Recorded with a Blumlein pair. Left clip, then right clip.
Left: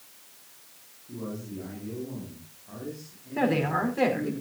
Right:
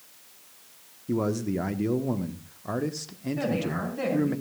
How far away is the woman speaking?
About 5 m.